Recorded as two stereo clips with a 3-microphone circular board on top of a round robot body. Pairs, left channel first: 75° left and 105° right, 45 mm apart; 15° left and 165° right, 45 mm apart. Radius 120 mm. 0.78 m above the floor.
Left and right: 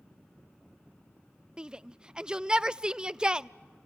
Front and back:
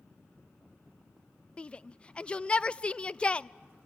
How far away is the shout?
About 0.5 m.